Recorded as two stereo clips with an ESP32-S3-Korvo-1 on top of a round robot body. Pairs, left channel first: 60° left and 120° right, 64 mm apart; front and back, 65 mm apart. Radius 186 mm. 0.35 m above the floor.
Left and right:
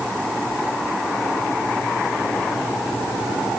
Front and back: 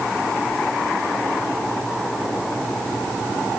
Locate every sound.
Only background noise.